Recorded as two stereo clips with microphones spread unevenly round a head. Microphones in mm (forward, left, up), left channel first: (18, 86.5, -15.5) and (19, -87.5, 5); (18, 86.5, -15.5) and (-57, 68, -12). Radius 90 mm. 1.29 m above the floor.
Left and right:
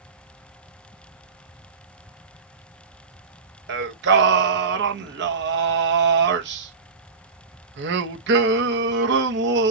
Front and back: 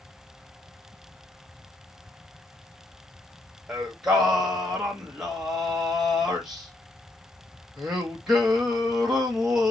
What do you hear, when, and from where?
3.7 s singing: 80° right, 0.9 m